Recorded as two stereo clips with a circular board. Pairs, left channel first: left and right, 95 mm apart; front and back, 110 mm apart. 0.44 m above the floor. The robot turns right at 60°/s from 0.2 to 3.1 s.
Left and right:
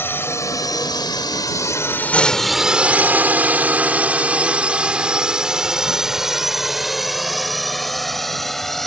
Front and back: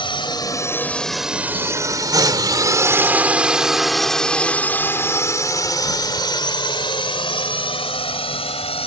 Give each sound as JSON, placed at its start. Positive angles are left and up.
{"t": 0.0, "sound": "a drone", "azimuth_deg": 30}